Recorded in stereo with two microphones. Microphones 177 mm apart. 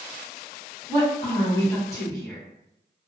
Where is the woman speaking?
15° left (ahead or behind), 1.6 m.